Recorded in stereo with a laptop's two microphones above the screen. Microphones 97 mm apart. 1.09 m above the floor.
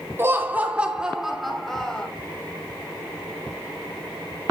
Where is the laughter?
25° right (ahead or behind), 2.5 m; by 2.1 s 10° left (ahead or behind), 3 m.